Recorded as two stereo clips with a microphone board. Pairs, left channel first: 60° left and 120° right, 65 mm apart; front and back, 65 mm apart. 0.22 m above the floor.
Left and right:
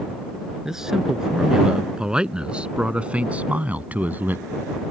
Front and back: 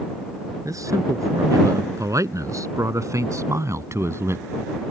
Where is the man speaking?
155° left; by 4.5 s 165° right.